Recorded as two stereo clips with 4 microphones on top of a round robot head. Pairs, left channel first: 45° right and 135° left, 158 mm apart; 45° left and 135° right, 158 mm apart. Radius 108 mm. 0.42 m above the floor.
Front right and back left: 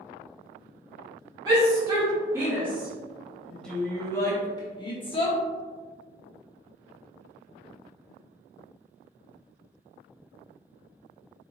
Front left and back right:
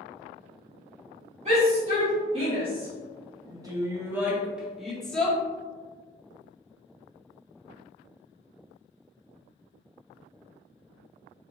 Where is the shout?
165° right, 1.7 m; by 5.4 s 35° right, 1.3 m.